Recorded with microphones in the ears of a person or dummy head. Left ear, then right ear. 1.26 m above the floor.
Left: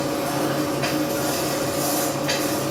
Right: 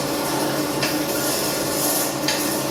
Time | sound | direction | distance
0.0 | a machine running | 85° right | 3 m